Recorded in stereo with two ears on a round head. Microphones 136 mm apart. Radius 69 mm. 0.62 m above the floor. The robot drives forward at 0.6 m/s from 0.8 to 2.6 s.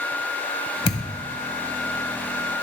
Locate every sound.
0.8 s a thud: 35° left (ahead or behind), 1.0 m; by 1.2 s 45° left (ahead or behind), 0.9 m